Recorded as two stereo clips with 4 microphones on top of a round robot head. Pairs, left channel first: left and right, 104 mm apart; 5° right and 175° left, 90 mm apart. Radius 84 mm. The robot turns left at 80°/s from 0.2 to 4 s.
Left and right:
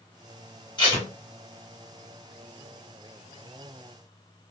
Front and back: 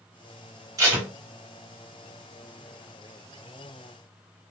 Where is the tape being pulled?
130° left, 1.9 m; by 1.1 s 105° left, 1.9 m.